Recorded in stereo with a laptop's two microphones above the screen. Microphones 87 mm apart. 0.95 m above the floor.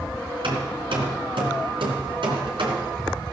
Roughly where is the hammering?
Right.